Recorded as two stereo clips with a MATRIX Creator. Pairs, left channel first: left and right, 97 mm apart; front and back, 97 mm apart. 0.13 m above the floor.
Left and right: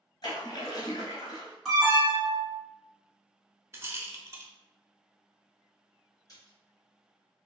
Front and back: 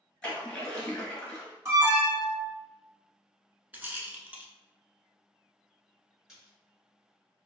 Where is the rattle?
125° right, 0.5 m.